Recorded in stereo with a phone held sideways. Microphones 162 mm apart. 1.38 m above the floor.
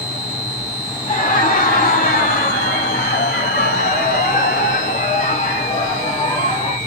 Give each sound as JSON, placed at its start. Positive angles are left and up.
{"t": 1.1, "sound": "laughter", "side_deg": 50, "distance_m": 1.7}